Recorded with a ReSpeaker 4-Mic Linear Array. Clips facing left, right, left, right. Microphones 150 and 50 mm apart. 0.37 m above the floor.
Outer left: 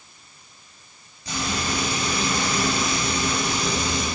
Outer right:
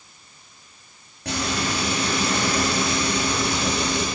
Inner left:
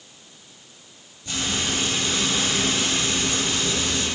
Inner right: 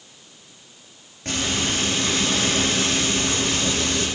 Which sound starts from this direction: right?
Frying, at 1.2 s.